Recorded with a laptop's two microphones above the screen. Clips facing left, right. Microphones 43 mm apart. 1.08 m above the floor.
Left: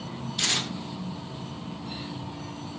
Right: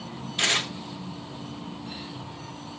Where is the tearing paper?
30° right (ahead or behind), 1.7 m.